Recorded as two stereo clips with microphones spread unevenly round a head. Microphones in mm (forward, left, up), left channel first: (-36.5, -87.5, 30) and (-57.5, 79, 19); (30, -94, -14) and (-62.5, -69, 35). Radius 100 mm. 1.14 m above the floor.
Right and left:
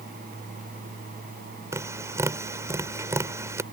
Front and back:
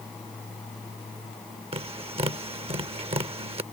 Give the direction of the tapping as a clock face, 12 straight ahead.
6 o'clock.